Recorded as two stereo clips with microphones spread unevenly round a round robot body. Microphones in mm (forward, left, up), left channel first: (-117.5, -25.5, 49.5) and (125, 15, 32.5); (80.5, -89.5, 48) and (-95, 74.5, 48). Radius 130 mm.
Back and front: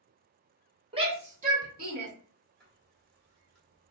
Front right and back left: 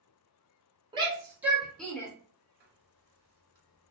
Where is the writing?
100° left, 1.3 m.